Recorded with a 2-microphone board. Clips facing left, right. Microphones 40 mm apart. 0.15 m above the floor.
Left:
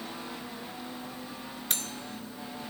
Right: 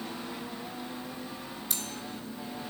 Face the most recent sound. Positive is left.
turn(degrees=50)  # may be behind; listen again after turning